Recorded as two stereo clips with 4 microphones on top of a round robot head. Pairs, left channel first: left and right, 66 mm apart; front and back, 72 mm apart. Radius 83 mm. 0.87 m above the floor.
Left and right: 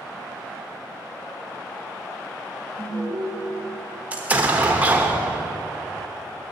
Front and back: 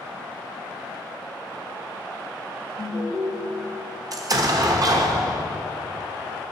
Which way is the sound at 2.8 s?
30° left.